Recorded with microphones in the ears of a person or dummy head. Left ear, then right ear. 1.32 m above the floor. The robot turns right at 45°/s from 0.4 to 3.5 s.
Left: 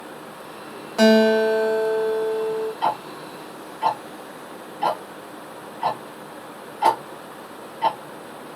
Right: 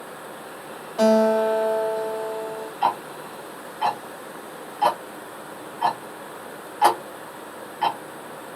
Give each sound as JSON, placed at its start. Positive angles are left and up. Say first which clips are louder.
{"t": 1.0, "sound": "a guitar", "louder": "left 2 dB", "azimuth_deg": 140, "distance_m": 1.1}
{"t": 2.8, "sound": "ticking", "louder": "right 1 dB", "side_deg": -15, "distance_m": 0.9}